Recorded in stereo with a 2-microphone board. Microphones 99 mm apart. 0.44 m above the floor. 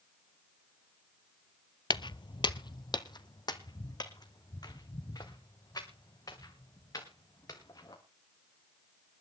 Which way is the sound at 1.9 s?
50° left (ahead or behind).